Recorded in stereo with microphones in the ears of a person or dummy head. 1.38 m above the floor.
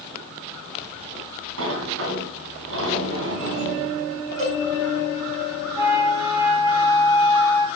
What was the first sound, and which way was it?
A sliding door, 70° right (ahead or behind).